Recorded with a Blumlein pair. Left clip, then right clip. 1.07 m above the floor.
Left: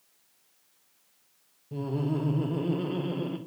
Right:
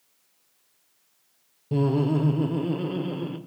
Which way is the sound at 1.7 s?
35° right.